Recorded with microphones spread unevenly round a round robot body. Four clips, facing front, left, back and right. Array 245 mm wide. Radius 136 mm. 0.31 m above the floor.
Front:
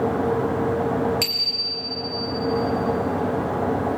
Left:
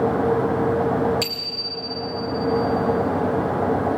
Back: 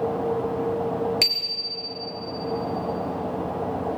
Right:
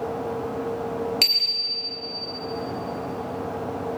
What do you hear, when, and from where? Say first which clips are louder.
1.2 s a bicycle bell: left 4 dB, front 3 dB; 145° right, 4.5 m